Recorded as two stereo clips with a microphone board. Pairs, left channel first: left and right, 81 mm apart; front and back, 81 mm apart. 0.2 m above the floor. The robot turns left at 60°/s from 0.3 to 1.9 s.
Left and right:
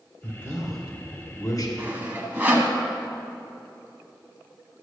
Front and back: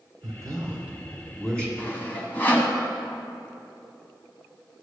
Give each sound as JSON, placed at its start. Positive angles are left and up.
{"t": 0.2, "sound": "a man speaking", "azimuth_deg": 150, "distance_m": 2.0}
{"t": 1.8, "sound": "sawing", "azimuth_deg": -40, "distance_m": 1.1}